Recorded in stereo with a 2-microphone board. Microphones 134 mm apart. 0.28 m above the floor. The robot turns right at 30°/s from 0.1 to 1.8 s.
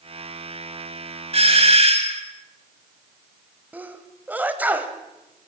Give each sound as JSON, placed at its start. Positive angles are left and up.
{"t": 1.3, "sound": "a doorbell", "side_deg": -50, "distance_m": 2.0}
{"t": 3.7, "sound": "a sneeze", "side_deg": -10, "distance_m": 1.3}